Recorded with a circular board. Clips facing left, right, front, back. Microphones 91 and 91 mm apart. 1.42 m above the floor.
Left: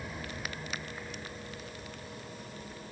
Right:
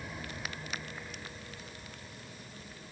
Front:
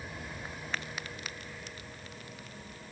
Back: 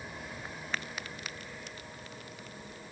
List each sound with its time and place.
Only background noise.